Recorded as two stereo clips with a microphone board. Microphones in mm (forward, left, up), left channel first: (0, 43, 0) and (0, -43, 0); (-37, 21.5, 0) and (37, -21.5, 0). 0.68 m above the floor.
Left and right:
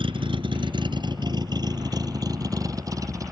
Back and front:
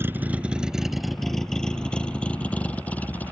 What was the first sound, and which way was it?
A vehicle, 95° right.